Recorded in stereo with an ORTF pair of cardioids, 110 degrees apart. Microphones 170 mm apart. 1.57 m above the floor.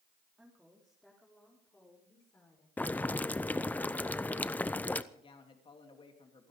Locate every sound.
0.4 s a woman speaking: 5° right, 3 m; by 2.7 s 20° left, 5 m
2.8 s boiling: 10° left, 0.6 m
5.1 s a man speaking: 30° left, 3.5 m